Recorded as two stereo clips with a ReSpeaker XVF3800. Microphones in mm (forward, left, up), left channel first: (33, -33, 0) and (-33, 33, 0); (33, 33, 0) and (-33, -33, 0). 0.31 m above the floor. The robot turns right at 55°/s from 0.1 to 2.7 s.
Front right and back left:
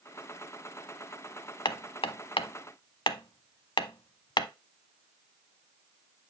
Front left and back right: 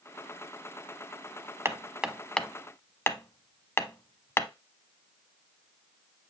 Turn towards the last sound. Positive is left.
turn(degrees=-20)